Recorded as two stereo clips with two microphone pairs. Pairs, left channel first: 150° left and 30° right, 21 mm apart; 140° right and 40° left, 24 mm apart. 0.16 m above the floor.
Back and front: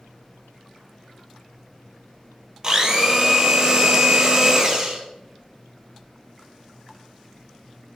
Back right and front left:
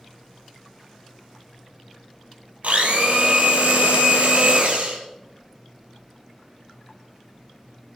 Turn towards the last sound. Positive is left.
turn(degrees=30)